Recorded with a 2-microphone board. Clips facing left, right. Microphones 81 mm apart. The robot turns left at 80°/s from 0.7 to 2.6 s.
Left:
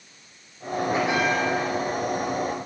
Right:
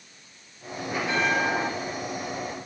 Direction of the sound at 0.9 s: 35° left.